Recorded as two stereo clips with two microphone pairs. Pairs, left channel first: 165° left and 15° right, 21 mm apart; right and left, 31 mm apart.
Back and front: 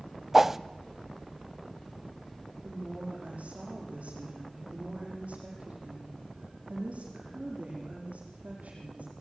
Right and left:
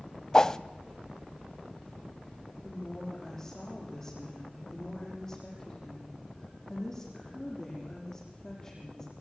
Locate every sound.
0.3 s a whoosh: 75° right, 0.5 m
2.6 s a woman speaking: 15° right, 9 m